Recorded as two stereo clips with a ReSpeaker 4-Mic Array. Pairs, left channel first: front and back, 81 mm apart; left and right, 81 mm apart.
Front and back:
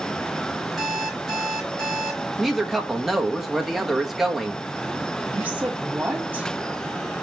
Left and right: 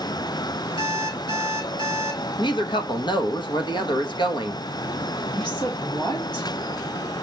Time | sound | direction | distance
0.8 | an alarm clock | 90° left | 4 m
2.4 | a woman speaking | 95° left | 1.3 m
5.3 | a woman speaking | 110° left | 3 m